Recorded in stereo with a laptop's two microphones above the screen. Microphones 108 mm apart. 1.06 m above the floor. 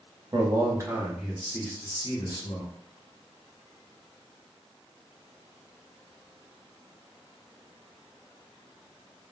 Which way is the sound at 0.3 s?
40° right (ahead or behind).